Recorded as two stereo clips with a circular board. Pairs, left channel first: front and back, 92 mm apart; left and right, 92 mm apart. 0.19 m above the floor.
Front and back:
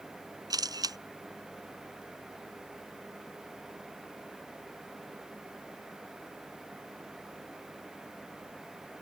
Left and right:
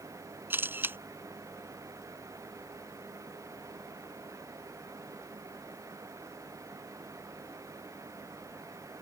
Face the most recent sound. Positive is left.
turn(degrees=-150)